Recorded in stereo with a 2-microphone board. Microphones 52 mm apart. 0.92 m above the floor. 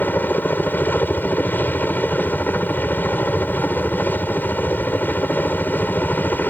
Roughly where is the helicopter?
Left.